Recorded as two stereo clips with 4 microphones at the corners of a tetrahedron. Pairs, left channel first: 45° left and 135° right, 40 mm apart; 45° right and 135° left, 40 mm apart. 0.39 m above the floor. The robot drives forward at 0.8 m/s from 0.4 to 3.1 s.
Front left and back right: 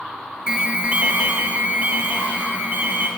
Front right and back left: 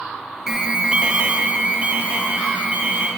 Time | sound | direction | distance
0.5 | an alarm | 175° right | 0.6 m